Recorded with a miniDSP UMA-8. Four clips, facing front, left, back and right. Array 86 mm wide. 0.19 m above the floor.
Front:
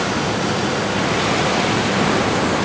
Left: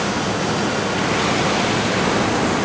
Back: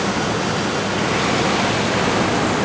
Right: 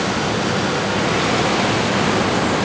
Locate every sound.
Only background noise.